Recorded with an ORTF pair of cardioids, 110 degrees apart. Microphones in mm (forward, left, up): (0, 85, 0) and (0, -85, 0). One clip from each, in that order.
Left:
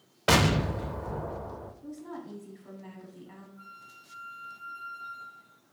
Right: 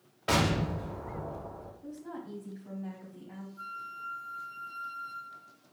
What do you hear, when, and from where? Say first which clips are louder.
0.3 s an explosion: left 4 dB; 35° left, 0.6 m
1.8 s a woman speaking: left 1 dB; 5° left, 1.3 m
3.6 s a flute: right 12 dB; 45° right, 0.7 m